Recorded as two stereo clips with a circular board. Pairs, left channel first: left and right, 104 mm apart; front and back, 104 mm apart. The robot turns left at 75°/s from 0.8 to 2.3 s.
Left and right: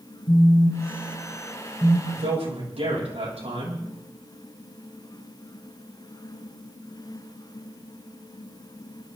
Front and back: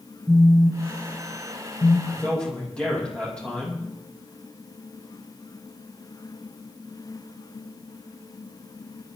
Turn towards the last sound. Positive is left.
turn(degrees=-80)